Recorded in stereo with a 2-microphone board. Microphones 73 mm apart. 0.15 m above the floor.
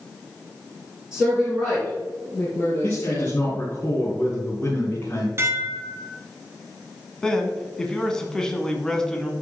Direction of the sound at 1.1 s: 10° right (ahead or behind).